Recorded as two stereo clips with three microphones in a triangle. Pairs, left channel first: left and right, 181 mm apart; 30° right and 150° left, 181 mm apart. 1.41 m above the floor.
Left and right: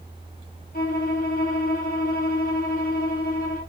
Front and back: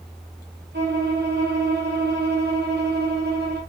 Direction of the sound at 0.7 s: 125° left.